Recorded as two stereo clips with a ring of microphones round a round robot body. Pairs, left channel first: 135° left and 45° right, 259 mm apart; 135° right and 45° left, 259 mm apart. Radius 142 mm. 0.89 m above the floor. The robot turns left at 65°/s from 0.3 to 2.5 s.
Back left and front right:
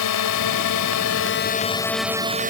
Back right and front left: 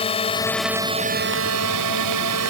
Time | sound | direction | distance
0.0 | a drone | 155° left | ?